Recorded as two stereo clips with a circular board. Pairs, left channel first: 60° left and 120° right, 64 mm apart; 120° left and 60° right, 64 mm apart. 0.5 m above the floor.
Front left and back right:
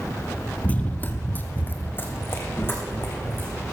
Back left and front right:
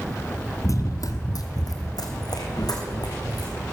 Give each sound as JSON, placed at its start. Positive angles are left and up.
{"t": 0.6, "sound": "running footsteps", "azimuth_deg": 120, "distance_m": 0.7}